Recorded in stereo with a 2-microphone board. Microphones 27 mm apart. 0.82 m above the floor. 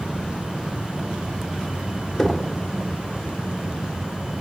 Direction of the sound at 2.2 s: 15° left (ahead or behind).